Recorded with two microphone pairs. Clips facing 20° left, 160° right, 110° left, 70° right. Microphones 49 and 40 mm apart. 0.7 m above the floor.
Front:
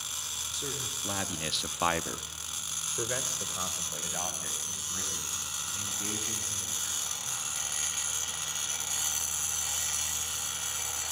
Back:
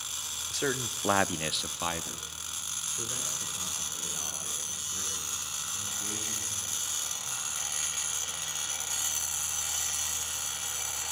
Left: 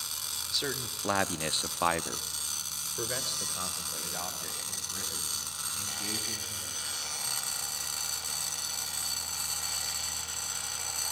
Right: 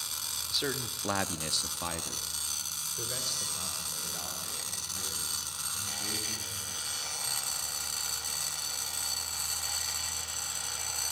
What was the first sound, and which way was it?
A man speaking, 150° right.